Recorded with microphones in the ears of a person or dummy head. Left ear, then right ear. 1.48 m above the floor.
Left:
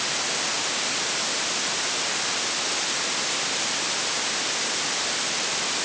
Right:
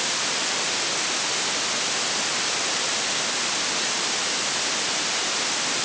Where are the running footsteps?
No running footsteps in this recording.